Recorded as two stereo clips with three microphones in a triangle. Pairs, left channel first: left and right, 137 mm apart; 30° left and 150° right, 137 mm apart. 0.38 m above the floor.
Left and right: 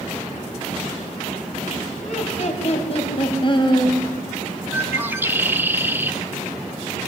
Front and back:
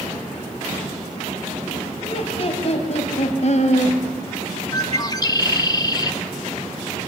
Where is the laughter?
70° left, 3.5 m; by 4.0 s 35° left, 2.5 m.